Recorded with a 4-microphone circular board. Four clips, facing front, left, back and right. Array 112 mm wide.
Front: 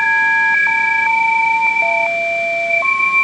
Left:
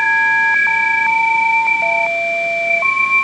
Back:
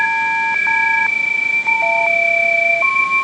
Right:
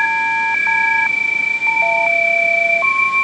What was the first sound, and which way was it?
Only background noise.